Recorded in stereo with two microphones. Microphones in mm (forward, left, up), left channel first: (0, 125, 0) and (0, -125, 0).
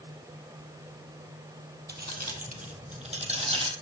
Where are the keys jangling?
40° right (ahead or behind), 2.5 m; by 3.7 s 20° right (ahead or behind), 3 m.